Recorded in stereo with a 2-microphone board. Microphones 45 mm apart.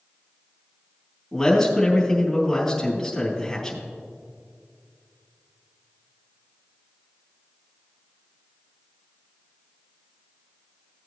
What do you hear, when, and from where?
1.3 s a man speaking: 10° left (ahead or behind), 3.5 m